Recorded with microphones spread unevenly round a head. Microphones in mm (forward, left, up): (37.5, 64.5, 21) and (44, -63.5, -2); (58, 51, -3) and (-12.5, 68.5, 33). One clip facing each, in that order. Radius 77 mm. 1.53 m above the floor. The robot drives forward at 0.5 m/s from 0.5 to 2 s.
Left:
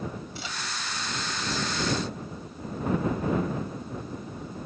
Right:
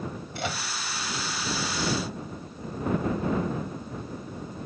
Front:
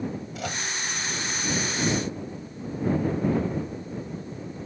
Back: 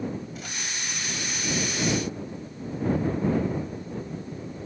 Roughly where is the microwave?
Ahead right.